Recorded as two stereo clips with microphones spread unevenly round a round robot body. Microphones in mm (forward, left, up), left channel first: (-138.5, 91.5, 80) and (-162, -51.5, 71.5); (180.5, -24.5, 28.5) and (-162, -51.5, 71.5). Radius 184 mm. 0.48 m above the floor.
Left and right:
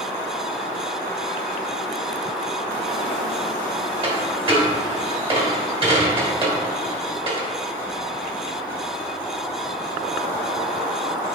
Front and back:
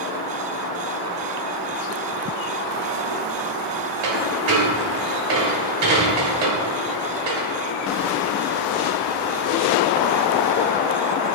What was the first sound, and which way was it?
A dropped coin, 150° right.